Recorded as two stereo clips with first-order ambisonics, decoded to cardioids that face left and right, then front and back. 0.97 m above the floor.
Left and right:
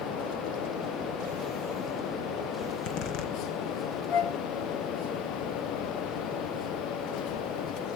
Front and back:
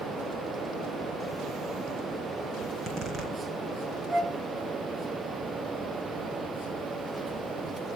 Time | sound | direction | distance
2.6 | a zipper | 115° left | 3 m
4.1 | a flute | 110° left | 1.0 m